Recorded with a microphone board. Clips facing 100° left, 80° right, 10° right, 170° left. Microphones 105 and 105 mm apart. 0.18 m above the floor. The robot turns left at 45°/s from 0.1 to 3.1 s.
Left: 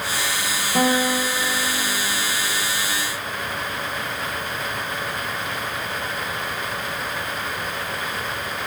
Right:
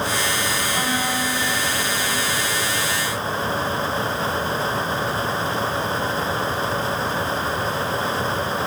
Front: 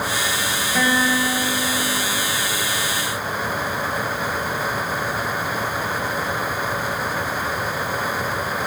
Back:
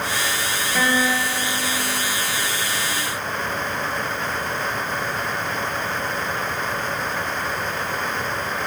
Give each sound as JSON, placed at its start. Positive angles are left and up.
{"t": 0.8, "sound": "a guitar", "azimuth_deg": 70, "distance_m": 2.5}